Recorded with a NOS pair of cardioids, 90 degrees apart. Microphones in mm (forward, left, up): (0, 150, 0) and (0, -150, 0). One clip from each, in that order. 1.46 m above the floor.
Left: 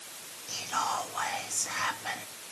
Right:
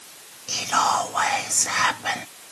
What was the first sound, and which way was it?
Whispering, 50° right.